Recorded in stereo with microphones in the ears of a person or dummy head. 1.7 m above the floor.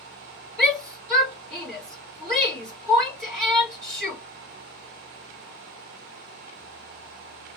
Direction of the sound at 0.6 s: 5° right (ahead or behind).